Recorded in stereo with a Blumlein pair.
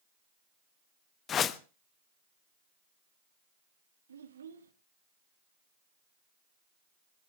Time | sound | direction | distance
1.3 | a whoosh | 25° left | 0.8 m
4.1 | a child speaking | 65° right | 1.0 m